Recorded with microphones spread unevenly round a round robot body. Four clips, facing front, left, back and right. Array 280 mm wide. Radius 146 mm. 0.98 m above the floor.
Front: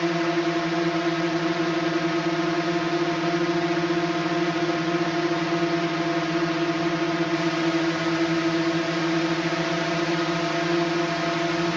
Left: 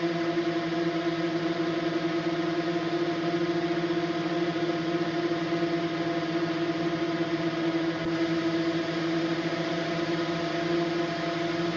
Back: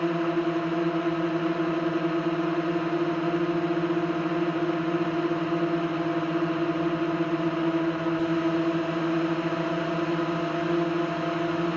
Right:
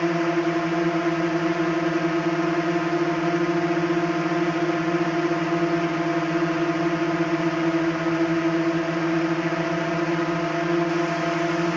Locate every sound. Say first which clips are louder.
0.0 s a drone: right 5 dB, front 2 dB; 75° right